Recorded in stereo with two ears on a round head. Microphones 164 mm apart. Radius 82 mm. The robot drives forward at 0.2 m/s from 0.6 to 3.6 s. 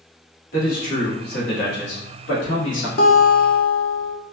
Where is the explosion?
I don't hear an explosion.